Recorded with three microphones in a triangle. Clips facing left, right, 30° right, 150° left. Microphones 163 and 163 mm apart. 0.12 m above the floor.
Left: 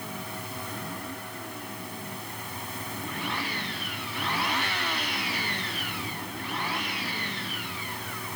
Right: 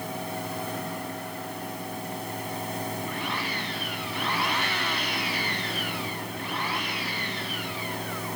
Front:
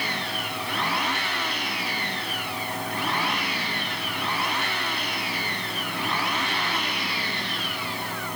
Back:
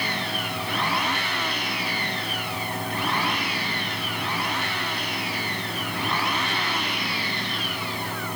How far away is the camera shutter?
I don't hear a camera shutter.